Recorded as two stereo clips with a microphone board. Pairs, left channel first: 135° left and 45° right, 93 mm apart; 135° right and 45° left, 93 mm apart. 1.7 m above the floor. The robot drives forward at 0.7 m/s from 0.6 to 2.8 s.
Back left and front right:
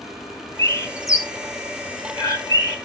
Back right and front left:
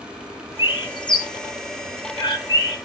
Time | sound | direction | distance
0.6 | a bird | 165° right | 0.9 m